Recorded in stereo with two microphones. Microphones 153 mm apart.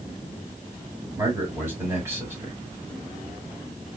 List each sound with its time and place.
1.2 s a man speaking: 15° right (ahead or behind), 1.6 m